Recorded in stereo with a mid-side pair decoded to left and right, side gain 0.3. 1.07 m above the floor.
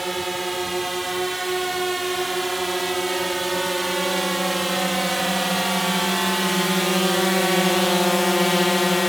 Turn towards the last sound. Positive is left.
turn(degrees=50)